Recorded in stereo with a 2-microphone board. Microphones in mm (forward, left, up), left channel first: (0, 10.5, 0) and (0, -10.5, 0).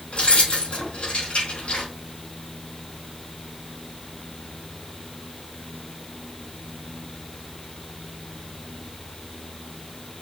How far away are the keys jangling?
About 3 m.